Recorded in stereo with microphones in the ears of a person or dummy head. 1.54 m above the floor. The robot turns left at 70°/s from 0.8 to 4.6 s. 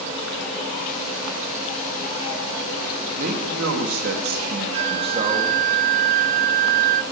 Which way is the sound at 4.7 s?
40° right (ahead or behind).